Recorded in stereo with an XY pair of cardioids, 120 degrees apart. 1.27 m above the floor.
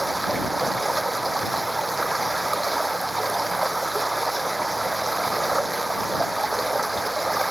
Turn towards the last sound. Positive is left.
turn(degrees=-10)